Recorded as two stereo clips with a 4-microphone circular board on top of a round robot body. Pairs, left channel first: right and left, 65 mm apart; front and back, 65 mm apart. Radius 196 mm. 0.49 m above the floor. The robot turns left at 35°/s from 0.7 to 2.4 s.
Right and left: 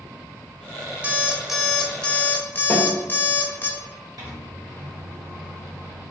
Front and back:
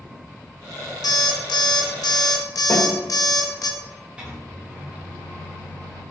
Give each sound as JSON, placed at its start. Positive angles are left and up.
{"t": 1.0, "sound": "an alarm clock", "azimuth_deg": 20, "distance_m": 0.7}
{"t": 2.7, "sound": "a snare drum", "azimuth_deg": -20, "distance_m": 1.6}
{"t": 4.2, "sound": "a microwave", "azimuth_deg": 110, "distance_m": 1.8}